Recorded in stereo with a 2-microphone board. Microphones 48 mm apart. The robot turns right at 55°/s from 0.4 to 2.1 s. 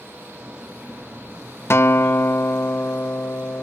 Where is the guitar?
60° left (ahead or behind); by 3.6 s 55° left (ahead or behind).